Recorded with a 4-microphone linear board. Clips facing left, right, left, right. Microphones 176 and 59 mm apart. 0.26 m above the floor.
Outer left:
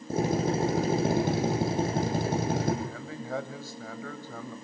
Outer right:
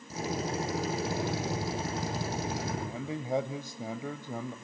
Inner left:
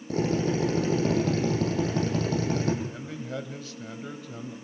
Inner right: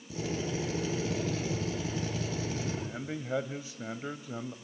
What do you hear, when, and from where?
0.1 s a drill: 55° left (ahead or behind), 7 m
2.8 s a man speaking: 20° right (ahead or behind), 1.0 m